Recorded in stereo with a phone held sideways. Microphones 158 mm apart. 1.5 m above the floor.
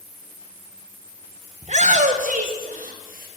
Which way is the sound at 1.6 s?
45° right (ahead or behind).